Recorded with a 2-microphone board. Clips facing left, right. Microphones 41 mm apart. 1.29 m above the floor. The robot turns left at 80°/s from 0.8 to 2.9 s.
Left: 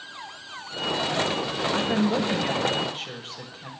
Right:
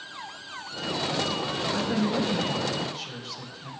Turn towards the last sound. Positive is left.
turn(degrees=40)